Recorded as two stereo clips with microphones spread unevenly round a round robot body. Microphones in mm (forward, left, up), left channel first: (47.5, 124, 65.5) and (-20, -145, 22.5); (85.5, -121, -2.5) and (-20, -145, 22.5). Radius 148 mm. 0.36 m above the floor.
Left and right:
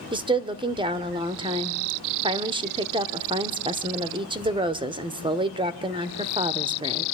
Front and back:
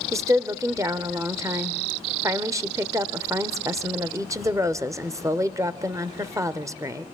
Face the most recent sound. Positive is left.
turn(degrees=-115)